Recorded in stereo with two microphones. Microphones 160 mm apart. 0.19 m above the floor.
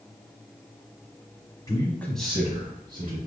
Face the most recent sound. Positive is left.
turn(degrees=-35)  # may be behind; listen again after turning